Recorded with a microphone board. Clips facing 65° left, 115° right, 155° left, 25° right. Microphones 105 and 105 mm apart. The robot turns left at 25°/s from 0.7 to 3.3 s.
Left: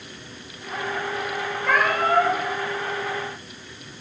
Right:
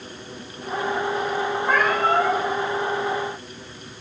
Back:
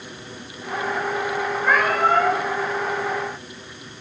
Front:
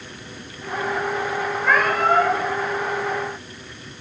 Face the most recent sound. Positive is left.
turn(degrees=35)